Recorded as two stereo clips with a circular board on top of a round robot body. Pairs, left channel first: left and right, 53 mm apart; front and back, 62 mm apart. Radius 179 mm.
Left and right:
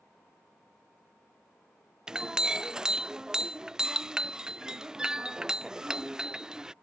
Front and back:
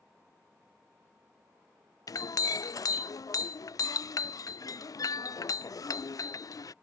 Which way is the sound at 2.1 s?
15° right.